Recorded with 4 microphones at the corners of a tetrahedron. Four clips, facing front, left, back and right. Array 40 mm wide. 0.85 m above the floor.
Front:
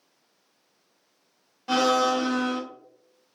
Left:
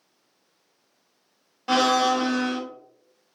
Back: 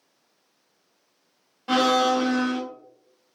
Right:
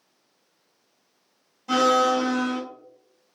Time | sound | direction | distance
1.7 | a blender | 105° left | 0.9 m